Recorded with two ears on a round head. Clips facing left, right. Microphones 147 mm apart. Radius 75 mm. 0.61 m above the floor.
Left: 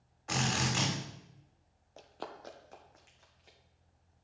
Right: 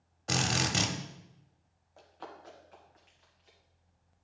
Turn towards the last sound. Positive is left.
turn(degrees=55)  # may be behind; listen again after turning